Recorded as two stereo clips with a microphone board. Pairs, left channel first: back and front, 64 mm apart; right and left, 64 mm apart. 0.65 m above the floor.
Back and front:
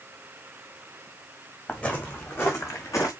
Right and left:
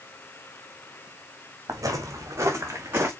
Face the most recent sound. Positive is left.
turn(degrees=145)